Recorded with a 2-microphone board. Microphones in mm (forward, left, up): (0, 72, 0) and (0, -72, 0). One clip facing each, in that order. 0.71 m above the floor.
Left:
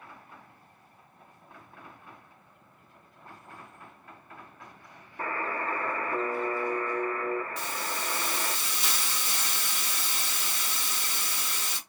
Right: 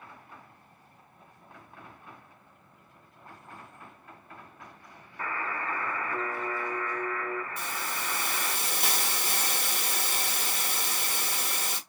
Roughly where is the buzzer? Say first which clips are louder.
Left 2 dB; left.